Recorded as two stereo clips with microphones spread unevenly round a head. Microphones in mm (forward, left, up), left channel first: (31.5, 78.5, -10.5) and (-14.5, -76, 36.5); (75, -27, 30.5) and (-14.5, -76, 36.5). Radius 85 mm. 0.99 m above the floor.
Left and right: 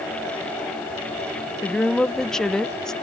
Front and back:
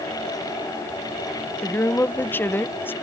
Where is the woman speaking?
45° left.